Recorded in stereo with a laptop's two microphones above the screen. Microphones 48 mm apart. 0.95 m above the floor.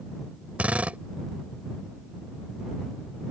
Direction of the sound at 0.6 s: 30° right (ahead or behind).